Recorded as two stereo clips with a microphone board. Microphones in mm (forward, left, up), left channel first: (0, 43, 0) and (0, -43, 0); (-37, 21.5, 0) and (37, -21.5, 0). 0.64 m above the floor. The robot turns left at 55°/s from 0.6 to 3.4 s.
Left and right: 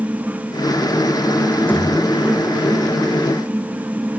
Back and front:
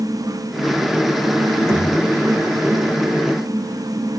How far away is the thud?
About 6 m.